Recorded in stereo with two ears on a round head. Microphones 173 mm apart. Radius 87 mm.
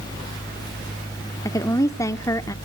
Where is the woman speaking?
15° left (ahead or behind), 0.8 m.